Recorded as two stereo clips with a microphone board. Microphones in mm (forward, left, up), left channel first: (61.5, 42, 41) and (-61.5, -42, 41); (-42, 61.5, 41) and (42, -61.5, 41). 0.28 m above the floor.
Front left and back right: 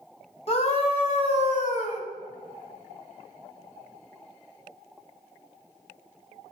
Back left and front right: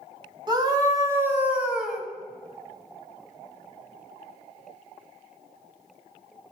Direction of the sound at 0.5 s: Straight ahead.